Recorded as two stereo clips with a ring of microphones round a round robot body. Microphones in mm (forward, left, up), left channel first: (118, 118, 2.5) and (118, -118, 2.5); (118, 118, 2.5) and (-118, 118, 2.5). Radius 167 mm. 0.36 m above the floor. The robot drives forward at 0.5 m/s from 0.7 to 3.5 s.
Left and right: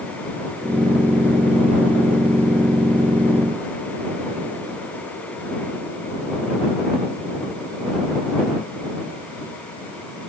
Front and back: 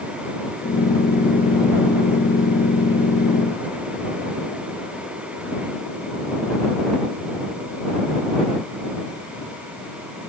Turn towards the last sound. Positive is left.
No sound to turn to.